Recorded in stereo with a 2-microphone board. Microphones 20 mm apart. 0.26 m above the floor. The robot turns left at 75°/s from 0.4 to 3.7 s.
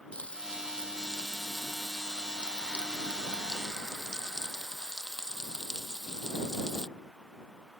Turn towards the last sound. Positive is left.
turn(degrees=-155)